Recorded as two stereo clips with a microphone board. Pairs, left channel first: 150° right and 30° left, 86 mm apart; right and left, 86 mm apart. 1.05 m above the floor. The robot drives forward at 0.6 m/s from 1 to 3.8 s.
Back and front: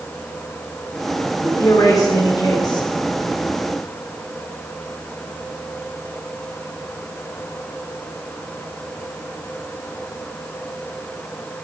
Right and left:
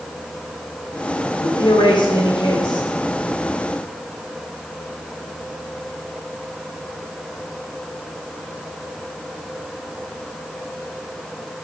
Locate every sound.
1.4 s a man speaking: 105° right, 4 m; by 2.9 s 115° right, 4.5 m